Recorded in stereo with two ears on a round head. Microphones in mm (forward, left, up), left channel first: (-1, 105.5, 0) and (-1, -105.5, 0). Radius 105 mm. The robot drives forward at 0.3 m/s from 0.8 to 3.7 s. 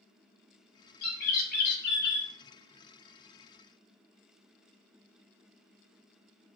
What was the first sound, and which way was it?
A bird, 40° left (ahead or behind).